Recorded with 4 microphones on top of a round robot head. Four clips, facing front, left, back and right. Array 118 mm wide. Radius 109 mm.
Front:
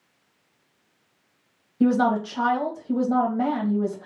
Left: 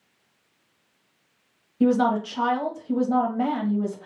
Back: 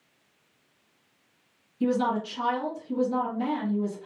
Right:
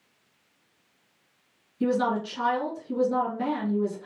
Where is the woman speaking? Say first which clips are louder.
Left 5 dB, front 5 dB; 40° left, 1.2 m.